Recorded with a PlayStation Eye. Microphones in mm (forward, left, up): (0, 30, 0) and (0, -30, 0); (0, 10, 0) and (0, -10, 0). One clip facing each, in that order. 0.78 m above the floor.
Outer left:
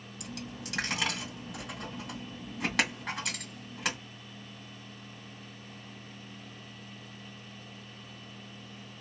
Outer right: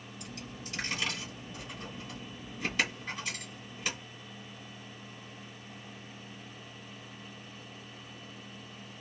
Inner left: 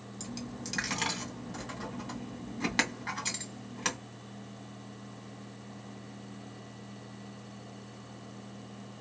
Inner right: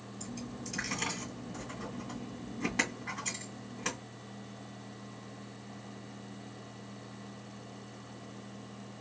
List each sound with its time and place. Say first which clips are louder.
0.2 s a dropped coin: outer left 4 dB, inner left 2 dB; 75° left (ahead or behind), 1.8 m